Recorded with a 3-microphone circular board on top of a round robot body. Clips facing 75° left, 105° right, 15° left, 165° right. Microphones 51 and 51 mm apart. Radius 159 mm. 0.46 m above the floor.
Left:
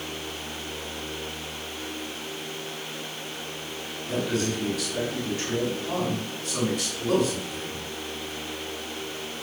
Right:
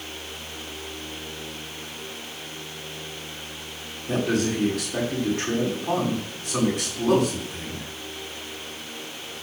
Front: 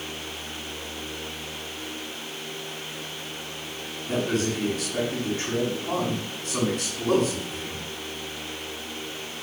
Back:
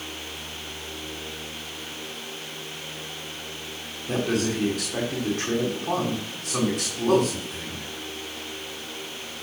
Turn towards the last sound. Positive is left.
turn(degrees=-140)